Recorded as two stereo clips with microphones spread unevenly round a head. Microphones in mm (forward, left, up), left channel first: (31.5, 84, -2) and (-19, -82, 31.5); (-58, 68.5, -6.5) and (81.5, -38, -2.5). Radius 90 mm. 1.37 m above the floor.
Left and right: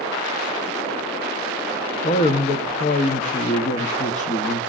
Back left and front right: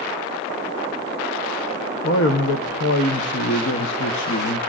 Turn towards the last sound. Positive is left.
turn(degrees=125)